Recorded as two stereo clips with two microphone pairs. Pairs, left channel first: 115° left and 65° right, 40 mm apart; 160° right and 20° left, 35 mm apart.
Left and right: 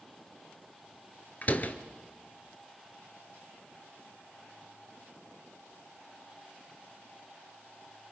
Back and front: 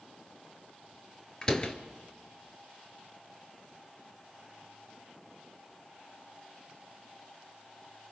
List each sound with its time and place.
1.4 s a door slam: 140° left, 1.4 m